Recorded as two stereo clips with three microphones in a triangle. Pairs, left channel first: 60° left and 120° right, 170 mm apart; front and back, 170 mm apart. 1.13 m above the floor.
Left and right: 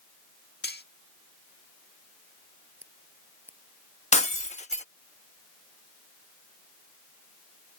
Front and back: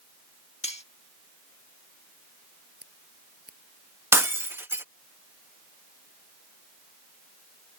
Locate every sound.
0.6 s cutlery clinking: 50° left
2.8 s scissors: 165° left
4.1 s breaking glass: 105° left